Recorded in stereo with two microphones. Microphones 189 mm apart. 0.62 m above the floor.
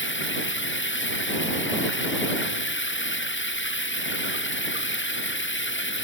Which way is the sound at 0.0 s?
85° left.